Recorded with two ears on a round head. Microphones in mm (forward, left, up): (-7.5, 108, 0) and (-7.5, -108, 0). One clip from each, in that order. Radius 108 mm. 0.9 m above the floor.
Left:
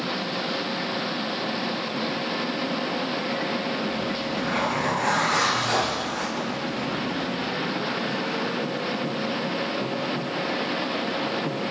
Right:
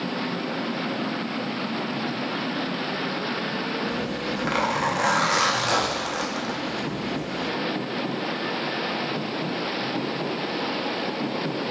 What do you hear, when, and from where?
3.9 s a zipper: 80° right, 0.7 m